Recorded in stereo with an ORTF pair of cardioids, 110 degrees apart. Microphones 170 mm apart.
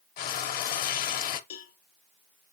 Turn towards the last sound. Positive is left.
turn(degrees=55)